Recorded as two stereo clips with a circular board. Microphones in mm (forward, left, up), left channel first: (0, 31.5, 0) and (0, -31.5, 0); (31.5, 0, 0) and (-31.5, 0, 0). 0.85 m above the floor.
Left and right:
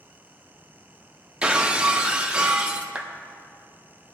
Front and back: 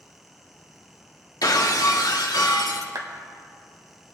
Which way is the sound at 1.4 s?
15° right.